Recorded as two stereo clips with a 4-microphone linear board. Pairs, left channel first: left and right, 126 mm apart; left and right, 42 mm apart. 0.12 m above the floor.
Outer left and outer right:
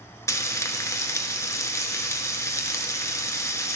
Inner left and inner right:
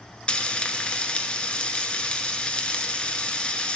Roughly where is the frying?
Left.